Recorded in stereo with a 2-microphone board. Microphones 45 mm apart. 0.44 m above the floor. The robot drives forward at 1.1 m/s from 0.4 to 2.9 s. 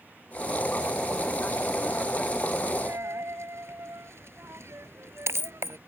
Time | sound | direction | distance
2.9 | a dropped coin | 65° right (ahead or behind) | ?